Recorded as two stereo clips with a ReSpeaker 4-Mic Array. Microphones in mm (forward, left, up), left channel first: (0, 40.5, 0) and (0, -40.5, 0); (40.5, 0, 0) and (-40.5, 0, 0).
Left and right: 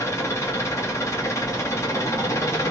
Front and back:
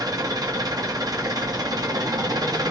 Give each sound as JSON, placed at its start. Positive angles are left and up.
{"t": 0.0, "sound": "an engine running", "azimuth_deg": 145, "distance_m": 1.5}